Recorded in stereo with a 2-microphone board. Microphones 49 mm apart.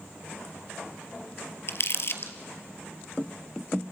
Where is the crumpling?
55° left (ahead or behind), 1.5 m.